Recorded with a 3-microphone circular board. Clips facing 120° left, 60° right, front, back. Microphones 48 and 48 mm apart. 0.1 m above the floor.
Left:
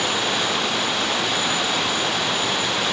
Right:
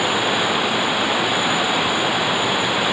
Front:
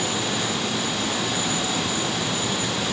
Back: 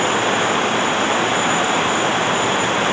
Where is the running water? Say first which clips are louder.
Right 3 dB, back 9 dB; 135° right.